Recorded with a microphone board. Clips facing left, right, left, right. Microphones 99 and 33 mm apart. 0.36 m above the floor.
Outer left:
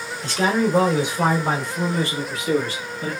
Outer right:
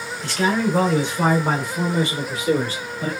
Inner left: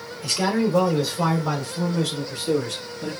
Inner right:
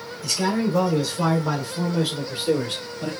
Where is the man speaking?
35° left (ahead or behind), 1.0 m; by 3.1 s 40° right (ahead or behind), 1.3 m.